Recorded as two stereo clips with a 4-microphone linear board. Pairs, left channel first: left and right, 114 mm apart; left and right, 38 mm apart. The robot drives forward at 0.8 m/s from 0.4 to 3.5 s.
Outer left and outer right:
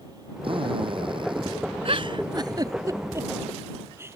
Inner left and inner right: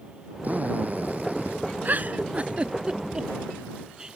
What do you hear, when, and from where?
0.4 s a drill: 50° right (ahead or behind); by 1.6 s 45° right (ahead or behind)
1.9 s a giggle: 60° right (ahead or behind); by 4.2 s 20° right (ahead or behind)